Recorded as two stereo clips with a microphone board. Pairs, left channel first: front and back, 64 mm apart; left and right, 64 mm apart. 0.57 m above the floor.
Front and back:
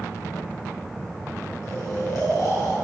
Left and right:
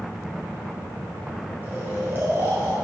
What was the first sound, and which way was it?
Snoring, 35° right.